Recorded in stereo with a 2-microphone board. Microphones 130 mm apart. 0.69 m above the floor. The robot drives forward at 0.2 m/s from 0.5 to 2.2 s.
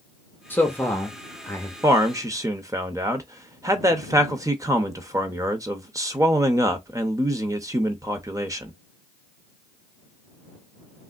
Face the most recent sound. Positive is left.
turn(degrees=-25)  # may be behind; listen again after turning